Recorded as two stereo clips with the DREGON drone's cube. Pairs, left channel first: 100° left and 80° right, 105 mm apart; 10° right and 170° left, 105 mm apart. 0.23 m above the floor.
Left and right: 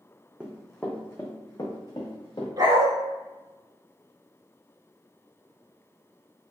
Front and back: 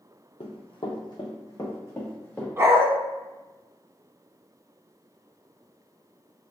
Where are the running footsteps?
Straight ahead, 0.7 m; by 2.5 s 60° left, 1.4 m.